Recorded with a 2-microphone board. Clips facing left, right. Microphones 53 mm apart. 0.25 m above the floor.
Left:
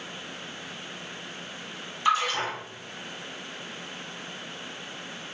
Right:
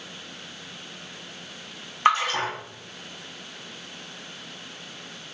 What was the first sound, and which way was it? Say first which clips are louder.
A splash: right 3 dB; 50° right (ahead or behind).